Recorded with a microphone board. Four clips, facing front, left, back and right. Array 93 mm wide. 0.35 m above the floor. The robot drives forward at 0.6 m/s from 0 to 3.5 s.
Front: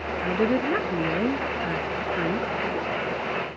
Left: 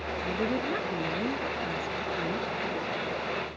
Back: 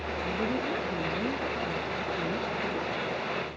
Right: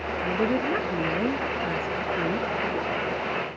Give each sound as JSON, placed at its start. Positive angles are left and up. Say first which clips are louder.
{"t": 0.2, "sound": "a woman speaking", "louder": "right 5 dB, front 8 dB", "azimuth_deg": -20}